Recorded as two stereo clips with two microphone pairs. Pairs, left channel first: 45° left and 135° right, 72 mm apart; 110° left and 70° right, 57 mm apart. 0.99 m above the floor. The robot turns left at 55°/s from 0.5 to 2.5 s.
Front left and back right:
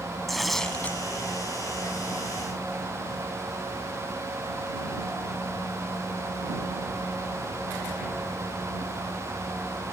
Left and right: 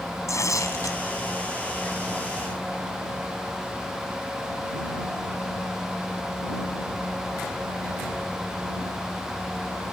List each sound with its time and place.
0.3 s tearing paper: 130° left; by 1.0 s 105° left